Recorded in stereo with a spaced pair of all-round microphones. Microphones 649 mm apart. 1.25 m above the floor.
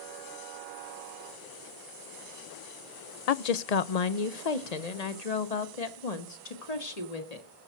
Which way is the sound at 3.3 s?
70° left (ahead or behind).